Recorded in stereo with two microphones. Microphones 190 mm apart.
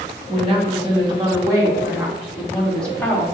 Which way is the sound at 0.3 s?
30° right (ahead or behind).